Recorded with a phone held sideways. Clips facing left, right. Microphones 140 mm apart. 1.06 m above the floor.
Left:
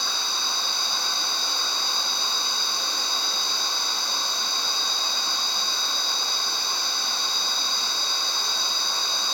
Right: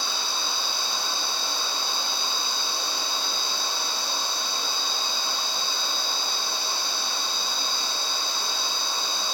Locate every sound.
0.0 s a machine running: 5° right (ahead or behind), 1.2 m